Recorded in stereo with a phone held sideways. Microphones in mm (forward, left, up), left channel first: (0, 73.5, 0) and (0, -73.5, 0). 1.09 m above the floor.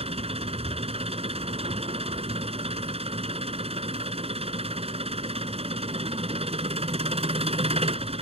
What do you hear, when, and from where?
0.0 s an engine running: 45° right (ahead or behind)